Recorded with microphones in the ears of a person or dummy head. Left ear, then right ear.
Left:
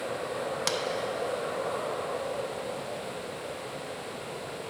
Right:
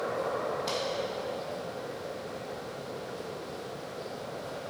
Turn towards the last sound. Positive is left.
turn(degrees=70)  # may be behind; listen again after turning